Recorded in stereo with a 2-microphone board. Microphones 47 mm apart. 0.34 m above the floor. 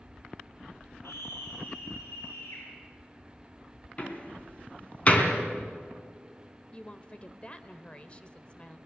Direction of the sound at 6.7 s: 25° left (ahead or behind).